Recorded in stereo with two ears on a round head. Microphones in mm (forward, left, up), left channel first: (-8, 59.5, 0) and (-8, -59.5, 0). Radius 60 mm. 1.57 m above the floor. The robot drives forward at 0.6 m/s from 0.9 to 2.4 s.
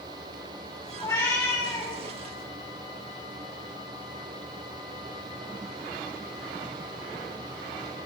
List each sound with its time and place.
1.0 s a cat meowing: 25° left (ahead or behind), 4.5 m; by 1.9 s 30° left (ahead or behind), 4 m